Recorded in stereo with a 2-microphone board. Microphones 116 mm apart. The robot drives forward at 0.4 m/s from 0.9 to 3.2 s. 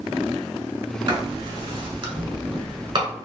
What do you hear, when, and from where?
1.1 s writing: 40° right (ahead or behind), 1.1 m; by 3.1 s 35° right (ahead or behind), 1.1 m